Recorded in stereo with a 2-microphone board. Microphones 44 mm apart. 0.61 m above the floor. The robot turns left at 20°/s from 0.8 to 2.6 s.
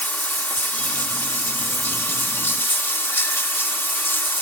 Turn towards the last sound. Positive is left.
turn(degrees=85)